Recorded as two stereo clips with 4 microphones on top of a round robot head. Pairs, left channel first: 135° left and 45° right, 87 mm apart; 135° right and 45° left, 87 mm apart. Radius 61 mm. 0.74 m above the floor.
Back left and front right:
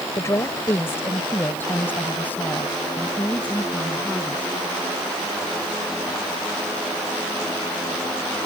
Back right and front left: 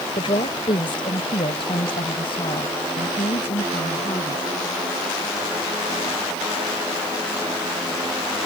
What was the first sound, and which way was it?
A woman speaking, 170° right.